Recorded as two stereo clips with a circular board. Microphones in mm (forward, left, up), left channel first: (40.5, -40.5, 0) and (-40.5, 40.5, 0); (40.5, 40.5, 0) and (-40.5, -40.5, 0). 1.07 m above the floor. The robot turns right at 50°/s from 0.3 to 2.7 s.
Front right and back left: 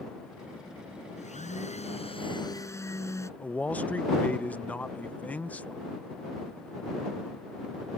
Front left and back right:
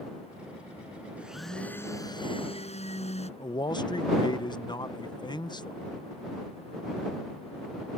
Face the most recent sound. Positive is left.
turn(degrees=25)